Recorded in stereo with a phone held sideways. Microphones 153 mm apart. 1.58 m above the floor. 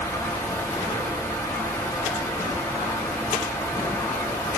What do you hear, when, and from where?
0.0 s a fan: 20° left (ahead or behind), 1.6 m